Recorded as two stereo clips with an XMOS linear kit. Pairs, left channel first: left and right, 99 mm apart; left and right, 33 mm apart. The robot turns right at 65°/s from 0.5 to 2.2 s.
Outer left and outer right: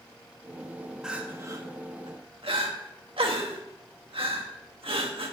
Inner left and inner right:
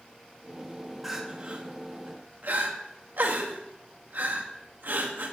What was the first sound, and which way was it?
Crying, 5° right (ahead or behind).